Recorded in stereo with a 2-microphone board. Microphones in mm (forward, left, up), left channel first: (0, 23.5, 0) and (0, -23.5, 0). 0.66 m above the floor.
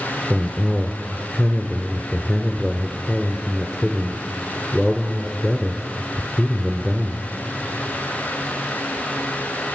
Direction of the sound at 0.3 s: 10° left (ahead or behind).